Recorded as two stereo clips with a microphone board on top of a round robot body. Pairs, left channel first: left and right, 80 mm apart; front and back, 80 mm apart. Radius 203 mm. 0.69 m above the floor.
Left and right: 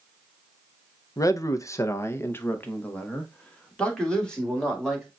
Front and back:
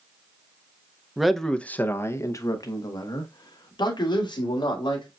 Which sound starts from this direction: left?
A man speaking, at 1.2 s.